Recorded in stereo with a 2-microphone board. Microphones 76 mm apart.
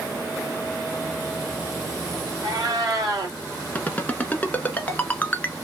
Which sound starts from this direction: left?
A ringtone, at 3.8 s.